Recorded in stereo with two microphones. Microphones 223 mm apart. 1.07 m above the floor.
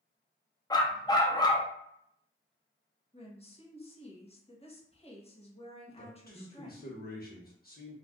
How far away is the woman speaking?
About 1.1 m.